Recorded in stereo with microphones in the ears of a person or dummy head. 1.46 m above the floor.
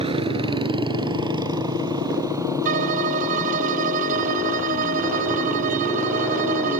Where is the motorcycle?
35° right (ahead or behind); by 6.8 s 15° right (ahead or behind).